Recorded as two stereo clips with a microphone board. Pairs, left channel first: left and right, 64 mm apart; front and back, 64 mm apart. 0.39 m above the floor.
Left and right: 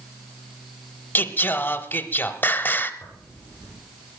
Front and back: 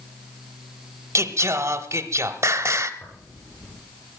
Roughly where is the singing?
Behind left.